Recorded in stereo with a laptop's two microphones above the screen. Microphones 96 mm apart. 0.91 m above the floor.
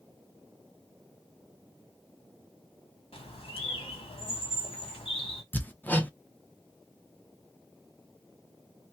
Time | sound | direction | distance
3.1 | a bird | 80° left | 1.7 m
5.5 | hammering | 20° left (ahead or behind) | 0.7 m